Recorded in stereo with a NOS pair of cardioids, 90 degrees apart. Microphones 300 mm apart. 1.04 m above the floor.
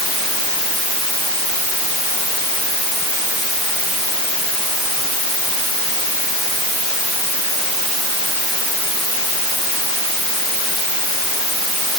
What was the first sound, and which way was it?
Only background noise.